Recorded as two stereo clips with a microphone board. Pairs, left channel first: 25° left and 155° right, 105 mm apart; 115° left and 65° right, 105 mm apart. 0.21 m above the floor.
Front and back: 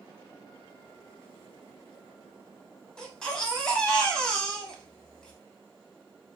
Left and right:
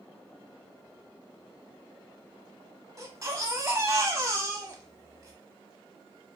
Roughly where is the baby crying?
Ahead right.